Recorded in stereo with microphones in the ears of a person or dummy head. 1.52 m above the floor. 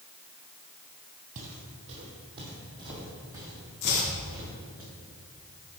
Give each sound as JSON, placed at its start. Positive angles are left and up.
{"t": 1.4, "sound": "footsteps", "side_deg": -45, "distance_m": 2.5}
{"t": 3.8, "sound": "chopping", "side_deg": 60, "distance_m": 1.8}